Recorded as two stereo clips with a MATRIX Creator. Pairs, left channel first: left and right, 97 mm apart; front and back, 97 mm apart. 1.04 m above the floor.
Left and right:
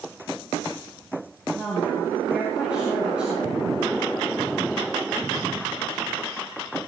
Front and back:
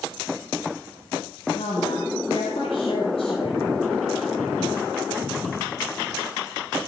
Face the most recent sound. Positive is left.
turn(degrees=-10)